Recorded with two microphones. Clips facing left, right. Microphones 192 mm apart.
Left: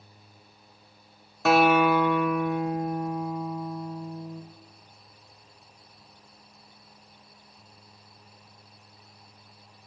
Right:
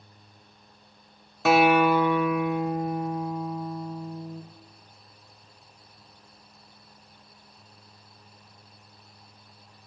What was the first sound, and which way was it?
A guitar, 5° right (ahead or behind).